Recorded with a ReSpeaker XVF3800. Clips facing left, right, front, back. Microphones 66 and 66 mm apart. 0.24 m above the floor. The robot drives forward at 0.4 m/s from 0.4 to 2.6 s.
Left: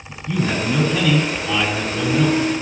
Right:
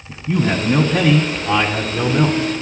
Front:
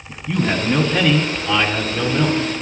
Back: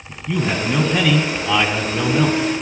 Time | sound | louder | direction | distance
0.1 | a man speaking | right 3 dB, front 1 dB | 85° right | 1.5 m